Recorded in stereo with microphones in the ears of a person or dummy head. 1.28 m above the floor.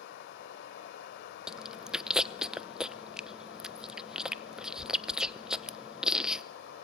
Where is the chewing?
Centre (ahead or behind), 0.7 m.